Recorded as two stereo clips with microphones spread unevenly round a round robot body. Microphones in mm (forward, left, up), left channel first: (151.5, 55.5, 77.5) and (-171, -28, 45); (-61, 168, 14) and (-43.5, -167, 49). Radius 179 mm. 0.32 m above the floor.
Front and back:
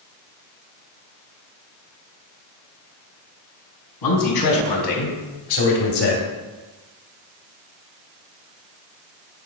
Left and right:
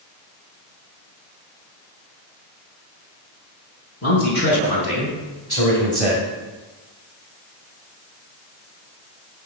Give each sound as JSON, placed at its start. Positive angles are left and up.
{"t": 4.0, "sound": "a man speaking", "azimuth_deg": 35, "distance_m": 3.5}